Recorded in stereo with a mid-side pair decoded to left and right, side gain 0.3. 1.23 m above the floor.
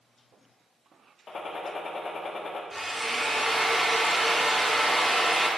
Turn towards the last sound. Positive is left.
turn(degrees=-5)